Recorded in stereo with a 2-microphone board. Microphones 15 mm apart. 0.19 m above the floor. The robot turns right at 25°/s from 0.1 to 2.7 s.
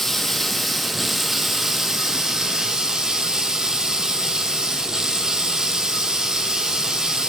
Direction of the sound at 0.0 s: 160° left.